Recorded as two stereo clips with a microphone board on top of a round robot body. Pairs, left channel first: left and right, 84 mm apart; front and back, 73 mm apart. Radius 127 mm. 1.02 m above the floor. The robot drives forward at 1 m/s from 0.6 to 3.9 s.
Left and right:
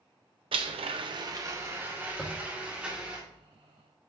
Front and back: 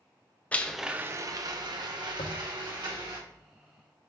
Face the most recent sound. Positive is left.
turn(degrees=180)